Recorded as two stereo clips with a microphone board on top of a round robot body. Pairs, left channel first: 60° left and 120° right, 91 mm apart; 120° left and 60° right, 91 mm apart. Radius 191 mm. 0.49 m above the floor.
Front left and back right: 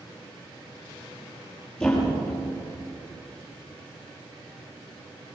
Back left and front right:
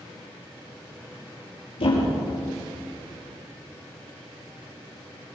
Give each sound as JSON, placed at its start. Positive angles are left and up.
{"t": 1.8, "sound": "a thud", "azimuth_deg": 135, "distance_m": 6.5}